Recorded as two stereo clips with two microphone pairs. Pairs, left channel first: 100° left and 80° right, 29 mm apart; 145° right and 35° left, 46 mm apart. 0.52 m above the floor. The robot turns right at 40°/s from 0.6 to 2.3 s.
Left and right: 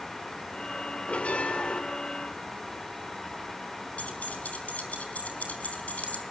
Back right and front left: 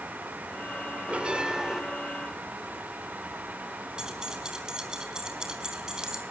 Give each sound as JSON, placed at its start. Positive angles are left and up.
{"t": 1.1, "sound": "a bell", "azimuth_deg": 85, "distance_m": 1.8}
{"t": 4.0, "sound": "keys jangling", "azimuth_deg": 110, "distance_m": 4.0}